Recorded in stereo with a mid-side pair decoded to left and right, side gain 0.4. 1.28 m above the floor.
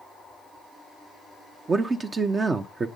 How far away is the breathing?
No breathing in this recording.